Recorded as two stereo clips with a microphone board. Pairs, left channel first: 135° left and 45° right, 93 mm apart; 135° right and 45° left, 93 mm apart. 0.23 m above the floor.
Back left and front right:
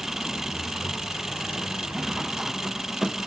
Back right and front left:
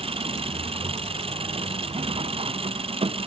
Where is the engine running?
40° left.